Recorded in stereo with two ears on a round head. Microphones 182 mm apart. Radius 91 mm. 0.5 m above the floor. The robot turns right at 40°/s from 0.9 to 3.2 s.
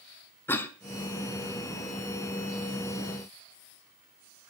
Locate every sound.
0.5 s a cough: 10° left (ahead or behind), 1.0 m